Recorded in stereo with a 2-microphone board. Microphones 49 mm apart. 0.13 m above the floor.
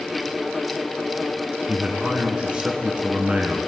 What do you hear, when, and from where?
1.7 s a man speaking: 25° right (ahead or behind), 1.4 m